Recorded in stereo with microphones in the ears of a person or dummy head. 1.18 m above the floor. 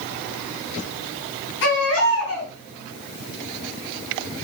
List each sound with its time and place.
1.6 s a baby crying: 65° left (ahead or behind), 4.5 m